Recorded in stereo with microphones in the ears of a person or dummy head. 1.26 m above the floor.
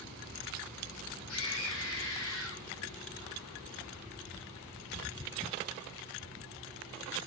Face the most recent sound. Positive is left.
turn(degrees=75)  # may be behind; listen again after turning